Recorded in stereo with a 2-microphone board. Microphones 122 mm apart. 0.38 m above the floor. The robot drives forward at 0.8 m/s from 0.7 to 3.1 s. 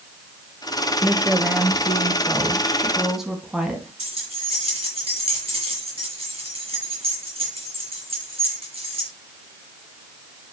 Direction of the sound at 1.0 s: 10° right (ahead or behind).